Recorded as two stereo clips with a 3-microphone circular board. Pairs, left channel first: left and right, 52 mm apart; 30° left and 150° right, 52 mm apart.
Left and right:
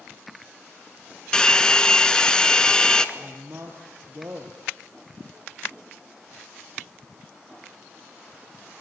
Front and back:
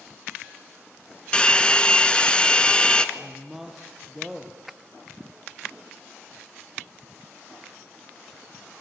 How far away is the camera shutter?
No camera shutter in this recording.